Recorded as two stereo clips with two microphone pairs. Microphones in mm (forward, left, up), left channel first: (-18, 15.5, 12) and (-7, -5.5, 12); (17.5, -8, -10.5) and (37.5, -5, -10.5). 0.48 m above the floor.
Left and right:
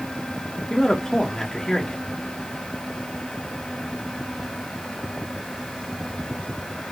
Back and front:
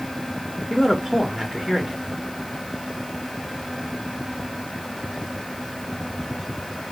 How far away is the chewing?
No chewing in this recording.